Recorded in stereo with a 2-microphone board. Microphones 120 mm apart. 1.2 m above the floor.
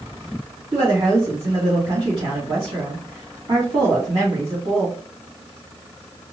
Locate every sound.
0.7 s a woman speaking: 50° right (ahead or behind), 2 m